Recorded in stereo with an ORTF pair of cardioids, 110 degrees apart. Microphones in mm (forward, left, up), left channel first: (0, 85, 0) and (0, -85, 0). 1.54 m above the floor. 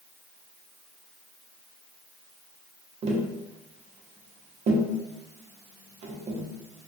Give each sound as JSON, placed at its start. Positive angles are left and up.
{"t": 3.0, "sound": "tapping", "azimuth_deg": -40, "distance_m": 0.6}